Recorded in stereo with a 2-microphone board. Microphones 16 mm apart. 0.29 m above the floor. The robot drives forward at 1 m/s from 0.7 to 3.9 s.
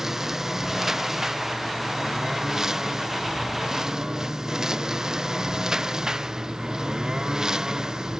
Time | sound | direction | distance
0.0 | a lawn mower | 30° right (ahead or behind) | ?